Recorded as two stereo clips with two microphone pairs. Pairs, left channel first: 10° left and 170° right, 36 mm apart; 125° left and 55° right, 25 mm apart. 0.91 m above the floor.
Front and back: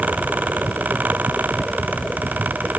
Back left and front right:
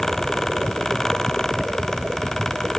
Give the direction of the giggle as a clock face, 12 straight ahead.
No giggle in this recording.